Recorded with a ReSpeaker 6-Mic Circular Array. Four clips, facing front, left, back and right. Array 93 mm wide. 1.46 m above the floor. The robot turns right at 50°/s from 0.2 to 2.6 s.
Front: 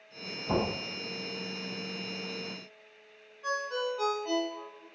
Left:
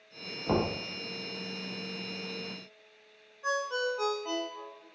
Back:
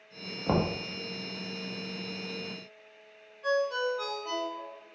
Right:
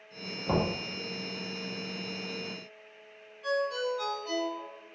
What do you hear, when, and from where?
0.5 s knocking: 170° left, 0.9 m; by 0.7 s straight behind, 0.9 m
3.4 s a ringtone: 80° left, 0.8 m